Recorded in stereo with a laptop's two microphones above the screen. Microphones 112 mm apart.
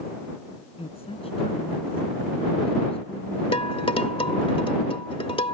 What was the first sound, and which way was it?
A woman speaking, 60° left (ahead or behind).